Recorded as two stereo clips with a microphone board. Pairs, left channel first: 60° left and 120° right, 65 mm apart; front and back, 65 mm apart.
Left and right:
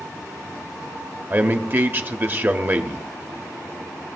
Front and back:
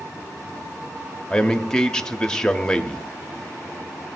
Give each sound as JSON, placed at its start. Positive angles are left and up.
{"t": 1.3, "sound": "a man speaking", "azimuth_deg": -75, "distance_m": 0.8}